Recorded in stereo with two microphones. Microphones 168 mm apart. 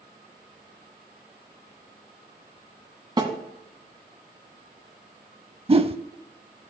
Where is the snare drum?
25° right (ahead or behind), 1.9 m.